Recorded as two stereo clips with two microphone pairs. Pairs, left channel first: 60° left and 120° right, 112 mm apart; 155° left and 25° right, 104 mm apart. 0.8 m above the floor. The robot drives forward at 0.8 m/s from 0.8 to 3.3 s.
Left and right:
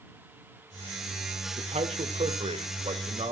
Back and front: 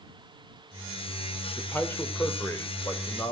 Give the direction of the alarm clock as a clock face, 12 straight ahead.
I don't hear an alarm clock.